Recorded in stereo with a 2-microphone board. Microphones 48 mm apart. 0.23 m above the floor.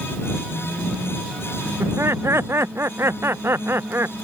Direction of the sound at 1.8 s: 65° right (ahead or behind).